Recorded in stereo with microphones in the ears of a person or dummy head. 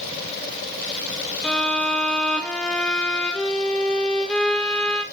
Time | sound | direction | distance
1.4 | a violin | centre (ahead or behind) | 1.1 m